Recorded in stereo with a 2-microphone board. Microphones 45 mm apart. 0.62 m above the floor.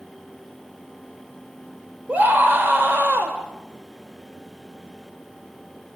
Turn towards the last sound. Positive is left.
turn(degrees=-50)  # may be behind; listen again after turning